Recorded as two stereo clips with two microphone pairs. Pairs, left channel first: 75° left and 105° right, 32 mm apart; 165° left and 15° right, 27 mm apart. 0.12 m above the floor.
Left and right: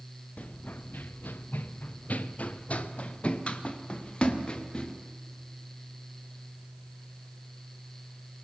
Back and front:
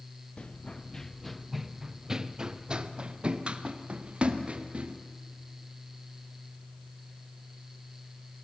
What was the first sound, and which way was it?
Running footsteps, 115° left.